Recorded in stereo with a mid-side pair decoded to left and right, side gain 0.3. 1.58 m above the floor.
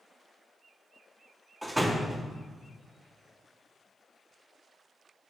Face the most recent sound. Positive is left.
turn(degrees=-10)